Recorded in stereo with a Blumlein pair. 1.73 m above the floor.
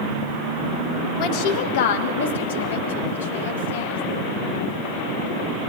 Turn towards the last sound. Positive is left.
turn(degrees=70)